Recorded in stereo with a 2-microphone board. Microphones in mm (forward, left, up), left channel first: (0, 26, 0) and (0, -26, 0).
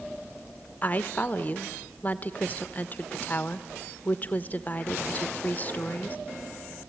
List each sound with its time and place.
0.8 s a woman speaking: 30° left (ahead or behind), 1.0 m